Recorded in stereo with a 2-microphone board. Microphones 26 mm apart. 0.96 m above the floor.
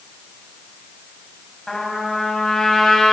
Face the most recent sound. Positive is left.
turn(degrees=15)  # may be behind; listen again after turning